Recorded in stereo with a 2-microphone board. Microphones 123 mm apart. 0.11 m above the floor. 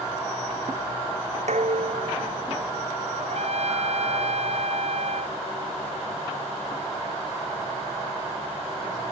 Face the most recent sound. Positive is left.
turn(degrees=-60)  # may be behind; listen again after turning